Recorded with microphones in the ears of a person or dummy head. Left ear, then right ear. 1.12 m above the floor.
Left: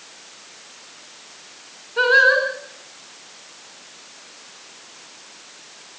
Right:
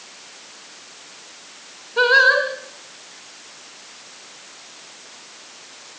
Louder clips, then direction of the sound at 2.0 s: Right 1 dB; 5° right (ahead or behind).